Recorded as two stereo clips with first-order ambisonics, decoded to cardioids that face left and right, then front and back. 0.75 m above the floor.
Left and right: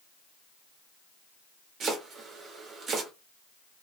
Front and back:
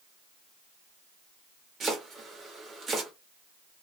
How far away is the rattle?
I don't hear a rattle.